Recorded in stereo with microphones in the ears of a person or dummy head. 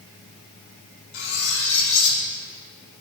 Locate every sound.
1.1 s cutlery clinking: 75° left (ahead or behind), 3 m